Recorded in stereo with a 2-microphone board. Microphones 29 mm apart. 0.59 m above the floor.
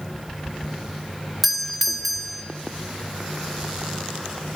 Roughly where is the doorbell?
Centre.